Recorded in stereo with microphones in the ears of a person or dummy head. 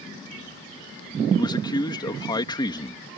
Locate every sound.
1.4 s a man speaking: 30° left (ahead or behind)